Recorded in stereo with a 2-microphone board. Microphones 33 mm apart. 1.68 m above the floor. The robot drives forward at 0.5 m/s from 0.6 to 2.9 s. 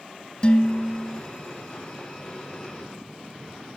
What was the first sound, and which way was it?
Dishes clattering, 30° left (ahead or behind).